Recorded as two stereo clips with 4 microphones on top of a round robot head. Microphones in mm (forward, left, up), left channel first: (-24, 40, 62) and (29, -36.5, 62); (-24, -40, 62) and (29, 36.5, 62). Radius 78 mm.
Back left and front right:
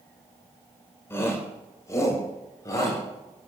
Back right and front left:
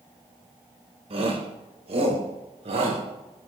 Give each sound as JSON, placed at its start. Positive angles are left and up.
{"t": 1.1, "sound": "a shout", "azimuth_deg": 60, "distance_m": 3.5}